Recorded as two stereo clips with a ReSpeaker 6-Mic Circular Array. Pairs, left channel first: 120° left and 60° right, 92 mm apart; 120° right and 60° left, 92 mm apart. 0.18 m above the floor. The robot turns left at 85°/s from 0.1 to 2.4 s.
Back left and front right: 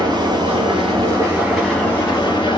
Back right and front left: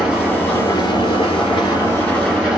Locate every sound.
0.0 s an engine running: 25° right, 3 m; by 2.6 s 140° left, 3 m